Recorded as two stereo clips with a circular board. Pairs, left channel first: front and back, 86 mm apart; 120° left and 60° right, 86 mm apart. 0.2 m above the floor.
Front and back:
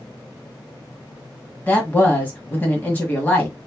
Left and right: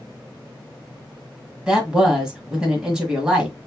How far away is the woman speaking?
About 1.4 m.